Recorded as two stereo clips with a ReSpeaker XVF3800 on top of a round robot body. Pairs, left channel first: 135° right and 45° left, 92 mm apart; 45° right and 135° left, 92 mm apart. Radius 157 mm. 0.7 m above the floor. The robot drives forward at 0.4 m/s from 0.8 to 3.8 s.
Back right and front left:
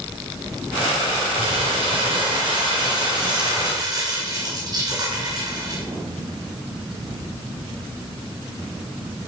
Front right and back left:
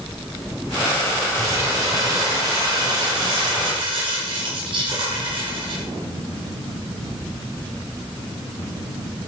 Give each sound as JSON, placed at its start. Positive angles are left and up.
{"t": 1.4, "sound": "crumpling", "azimuth_deg": 75, "distance_m": 2.5}